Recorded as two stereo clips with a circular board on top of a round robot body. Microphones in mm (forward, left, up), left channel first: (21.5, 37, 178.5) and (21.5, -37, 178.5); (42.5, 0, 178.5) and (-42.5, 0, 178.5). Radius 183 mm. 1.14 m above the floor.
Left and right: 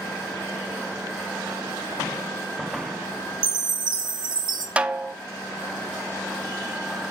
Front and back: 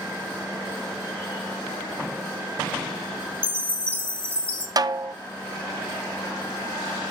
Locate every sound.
3.4 s a chime: 75° right, 1.0 m
4.8 s a snare drum: 160° right, 0.6 m